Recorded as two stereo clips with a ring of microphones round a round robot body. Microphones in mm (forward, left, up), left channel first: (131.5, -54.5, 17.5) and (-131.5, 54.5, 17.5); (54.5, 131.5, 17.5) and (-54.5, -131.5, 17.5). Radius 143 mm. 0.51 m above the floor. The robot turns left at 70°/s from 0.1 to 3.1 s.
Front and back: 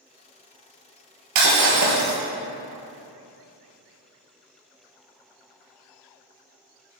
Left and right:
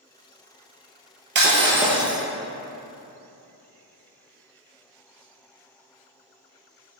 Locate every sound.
1.4 s breaking glass: 165° right, 2.0 m; by 2.2 s 135° left, 2.0 m